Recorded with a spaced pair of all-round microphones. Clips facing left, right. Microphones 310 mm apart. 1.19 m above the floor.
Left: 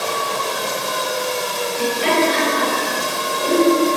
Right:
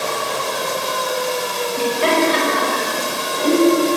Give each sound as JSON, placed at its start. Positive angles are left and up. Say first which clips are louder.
{"t": 1.8, "sound": "laughter", "louder": "right 1 dB", "side_deg": -70, "distance_m": 6.0}